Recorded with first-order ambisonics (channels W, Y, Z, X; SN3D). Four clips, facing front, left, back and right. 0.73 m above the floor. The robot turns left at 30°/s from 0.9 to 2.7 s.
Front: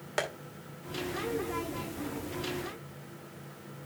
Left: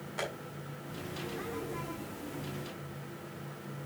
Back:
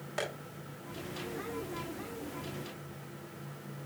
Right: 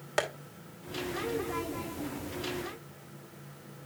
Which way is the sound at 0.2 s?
60° right.